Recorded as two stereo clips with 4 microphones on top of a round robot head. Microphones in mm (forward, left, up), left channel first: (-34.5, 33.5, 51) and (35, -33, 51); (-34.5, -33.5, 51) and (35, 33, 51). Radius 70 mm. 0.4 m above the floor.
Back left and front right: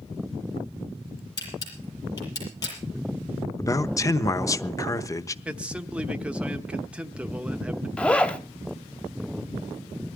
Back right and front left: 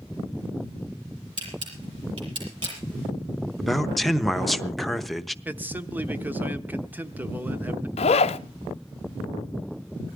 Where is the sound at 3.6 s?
135° left, 0.9 m.